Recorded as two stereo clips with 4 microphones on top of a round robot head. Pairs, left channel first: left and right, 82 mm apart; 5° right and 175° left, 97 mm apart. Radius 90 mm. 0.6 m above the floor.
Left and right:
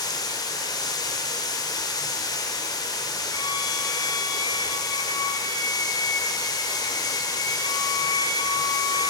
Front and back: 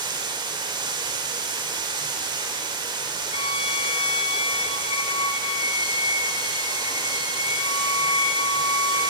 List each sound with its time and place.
0.0 s running water: 130° left, 1.3 m
3.3 s a violin: 30° left, 0.5 m